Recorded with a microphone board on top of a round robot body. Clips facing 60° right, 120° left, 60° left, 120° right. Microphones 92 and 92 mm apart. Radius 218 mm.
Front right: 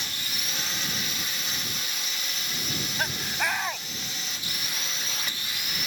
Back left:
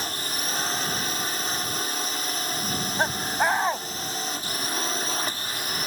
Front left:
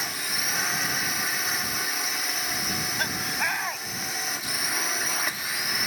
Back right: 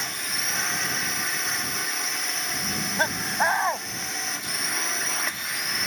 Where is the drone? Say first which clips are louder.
Back left 6 dB, even; 145° left.